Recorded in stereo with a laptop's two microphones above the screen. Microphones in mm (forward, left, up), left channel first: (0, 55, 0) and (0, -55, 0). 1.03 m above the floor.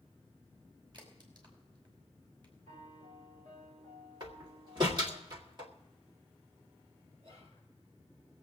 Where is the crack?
40° right (ahead or behind), 5 m.